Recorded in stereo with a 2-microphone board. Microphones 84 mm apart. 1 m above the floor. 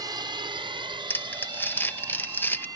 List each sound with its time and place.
0.0 s a drone: 50° right (ahead or behind); by 2.8 s 45° right (ahead or behind)
1.1 s crumpling: 25° left (ahead or behind)